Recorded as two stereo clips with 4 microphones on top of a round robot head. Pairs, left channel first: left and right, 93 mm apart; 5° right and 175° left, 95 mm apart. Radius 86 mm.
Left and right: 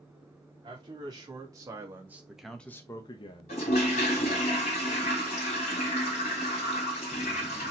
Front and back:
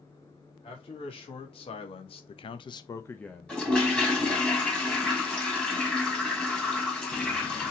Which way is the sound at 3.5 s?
75° left.